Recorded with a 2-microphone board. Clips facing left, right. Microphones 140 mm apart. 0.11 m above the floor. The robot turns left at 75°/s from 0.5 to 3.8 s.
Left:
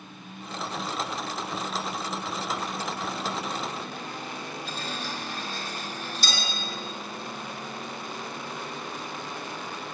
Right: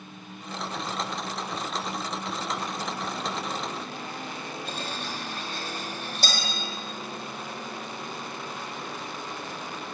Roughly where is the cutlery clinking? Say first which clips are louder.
Even; right.